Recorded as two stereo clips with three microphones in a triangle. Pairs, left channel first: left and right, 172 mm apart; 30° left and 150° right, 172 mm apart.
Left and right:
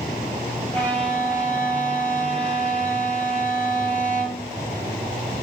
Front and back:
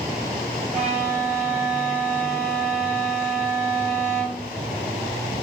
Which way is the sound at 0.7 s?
170° left.